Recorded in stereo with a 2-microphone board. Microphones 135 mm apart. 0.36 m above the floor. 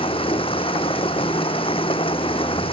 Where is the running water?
40° left (ahead or behind).